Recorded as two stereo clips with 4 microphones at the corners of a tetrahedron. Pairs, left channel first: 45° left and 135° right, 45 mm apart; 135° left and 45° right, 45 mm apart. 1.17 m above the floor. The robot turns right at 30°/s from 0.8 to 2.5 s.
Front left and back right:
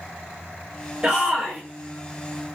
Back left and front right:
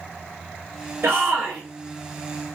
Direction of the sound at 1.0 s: 65° right.